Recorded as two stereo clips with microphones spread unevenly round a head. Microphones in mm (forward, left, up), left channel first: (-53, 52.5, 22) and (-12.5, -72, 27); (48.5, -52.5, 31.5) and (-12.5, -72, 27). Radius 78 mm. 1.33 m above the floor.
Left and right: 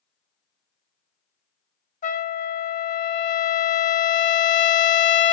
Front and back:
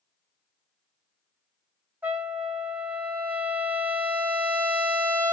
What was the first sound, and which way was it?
A trumpet, 130° left.